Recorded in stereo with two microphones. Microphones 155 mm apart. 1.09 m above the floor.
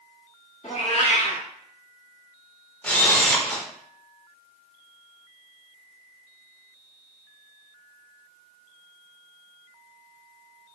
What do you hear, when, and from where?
0.6 s a cat meowing: 45° left (ahead or behind), 0.8 m
2.8 s a camera shutter: 10° left (ahead or behind), 0.6 m